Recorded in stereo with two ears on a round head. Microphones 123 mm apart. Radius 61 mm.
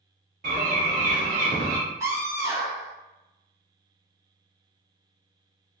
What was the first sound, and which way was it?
A bird, 70° right (ahead or behind).